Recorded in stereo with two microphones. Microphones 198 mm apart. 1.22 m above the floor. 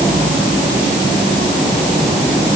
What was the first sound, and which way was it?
Only background noise.